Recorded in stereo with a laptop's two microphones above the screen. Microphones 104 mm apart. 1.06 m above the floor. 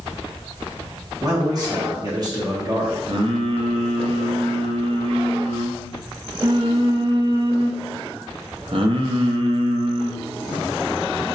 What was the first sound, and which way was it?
A man speaking, 40° right (ahead or behind).